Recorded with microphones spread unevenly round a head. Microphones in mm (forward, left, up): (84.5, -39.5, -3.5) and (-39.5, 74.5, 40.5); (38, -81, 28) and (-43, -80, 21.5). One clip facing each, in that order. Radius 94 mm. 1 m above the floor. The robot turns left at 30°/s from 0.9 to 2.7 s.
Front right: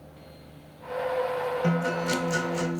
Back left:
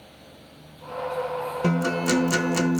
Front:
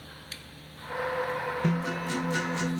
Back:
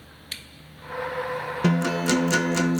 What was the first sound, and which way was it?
A guitar, 170° right.